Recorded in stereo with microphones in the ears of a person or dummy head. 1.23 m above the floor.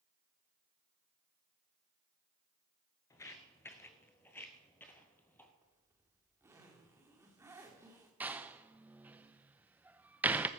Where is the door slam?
5° right (ahead or behind), 0.5 m.